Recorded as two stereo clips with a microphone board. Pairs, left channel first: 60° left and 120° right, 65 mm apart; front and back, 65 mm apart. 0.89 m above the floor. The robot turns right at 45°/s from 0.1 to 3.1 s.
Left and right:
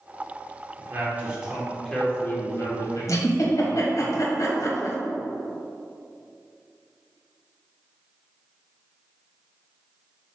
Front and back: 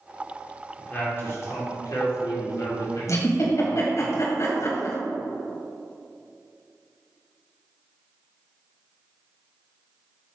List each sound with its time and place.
0.8 s a man speaking: 70° right, 2 m; by 4.1 s 30° left, 2 m
3.1 s a giggle: 35° left, 1.6 m